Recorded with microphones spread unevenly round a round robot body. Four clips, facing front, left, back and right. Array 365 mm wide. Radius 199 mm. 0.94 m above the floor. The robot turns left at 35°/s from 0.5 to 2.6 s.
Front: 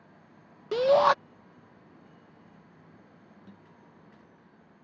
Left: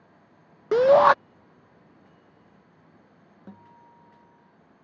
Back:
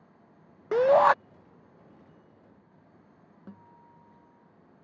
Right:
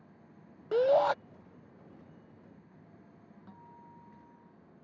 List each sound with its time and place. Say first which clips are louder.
0.7 s a shout: left 9 dB, back 2 dB; 75° left; by 1.1 s 60° left
3.5 s a guitar: left 5 dB, back 3 dB; 120° left